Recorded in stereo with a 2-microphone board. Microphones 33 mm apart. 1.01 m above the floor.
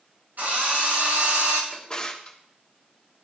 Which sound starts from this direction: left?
A drawer, at 1.7 s.